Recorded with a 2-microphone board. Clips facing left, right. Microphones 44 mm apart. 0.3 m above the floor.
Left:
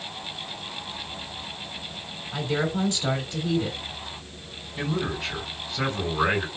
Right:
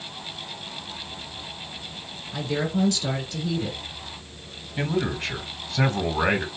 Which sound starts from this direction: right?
A man speaking, at 4.8 s.